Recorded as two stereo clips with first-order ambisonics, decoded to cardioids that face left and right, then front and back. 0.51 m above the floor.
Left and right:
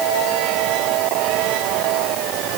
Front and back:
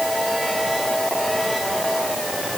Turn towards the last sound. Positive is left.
No sound to turn to.